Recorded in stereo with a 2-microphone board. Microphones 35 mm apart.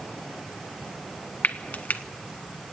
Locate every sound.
1.4 s frying: 55° left (ahead or behind), 1.0 m